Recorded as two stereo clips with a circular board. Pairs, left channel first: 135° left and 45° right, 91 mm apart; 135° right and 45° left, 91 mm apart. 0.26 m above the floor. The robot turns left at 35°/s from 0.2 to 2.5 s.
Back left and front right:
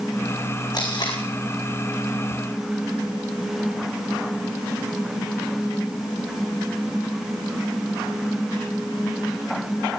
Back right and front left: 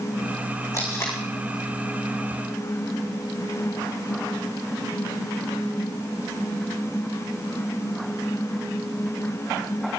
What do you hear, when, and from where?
0.7 s tape being pulled: 175° left, 4 m; by 1.2 s 160° left, 4 m